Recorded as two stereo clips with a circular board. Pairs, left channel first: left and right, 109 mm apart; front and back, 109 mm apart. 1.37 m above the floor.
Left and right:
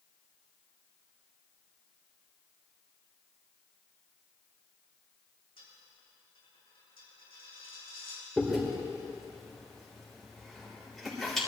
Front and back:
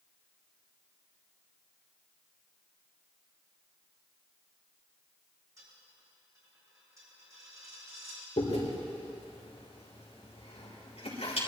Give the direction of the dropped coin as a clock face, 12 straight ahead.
8 o'clock.